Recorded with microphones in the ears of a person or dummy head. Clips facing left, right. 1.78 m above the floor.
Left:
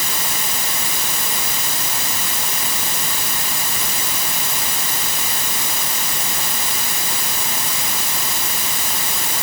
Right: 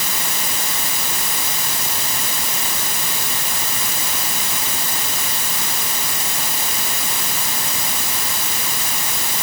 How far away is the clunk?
I don't hear a clunk.